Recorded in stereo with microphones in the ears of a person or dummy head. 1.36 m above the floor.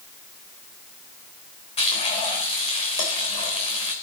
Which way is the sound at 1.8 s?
30° left (ahead or behind).